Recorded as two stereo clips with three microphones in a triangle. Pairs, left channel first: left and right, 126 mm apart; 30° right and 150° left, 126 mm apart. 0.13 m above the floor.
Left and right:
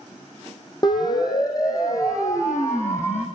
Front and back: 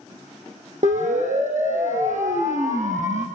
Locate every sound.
0.8 s a siren: 145° left, 5 m; by 3.2 s 160° left, 5.5 m